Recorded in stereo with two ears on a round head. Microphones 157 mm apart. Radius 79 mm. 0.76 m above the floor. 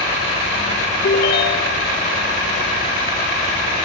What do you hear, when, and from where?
1.0 s a ringtone: 65° left (ahead or behind), 1.6 m